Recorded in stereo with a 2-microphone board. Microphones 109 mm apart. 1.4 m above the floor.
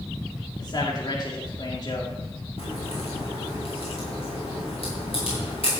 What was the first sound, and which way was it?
A man speaking, 40° left (ahead or behind).